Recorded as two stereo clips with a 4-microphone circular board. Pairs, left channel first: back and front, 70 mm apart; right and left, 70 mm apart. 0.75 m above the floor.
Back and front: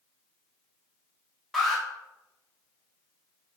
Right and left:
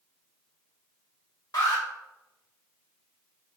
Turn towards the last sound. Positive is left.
turn(degrees=-90)